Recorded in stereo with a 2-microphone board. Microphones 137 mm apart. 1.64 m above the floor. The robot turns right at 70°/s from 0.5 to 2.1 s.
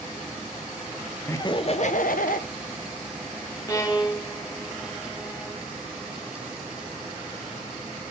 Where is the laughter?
15° left, 0.6 m; by 2.5 s 75° left, 0.6 m.